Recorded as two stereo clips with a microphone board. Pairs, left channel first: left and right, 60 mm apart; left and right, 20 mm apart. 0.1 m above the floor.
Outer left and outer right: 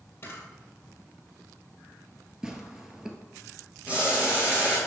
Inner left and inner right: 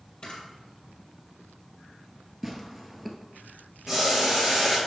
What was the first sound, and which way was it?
A camera shutter, 40° left (ahead or behind).